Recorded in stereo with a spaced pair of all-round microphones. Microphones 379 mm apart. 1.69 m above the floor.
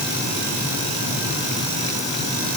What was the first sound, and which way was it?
Only background noise.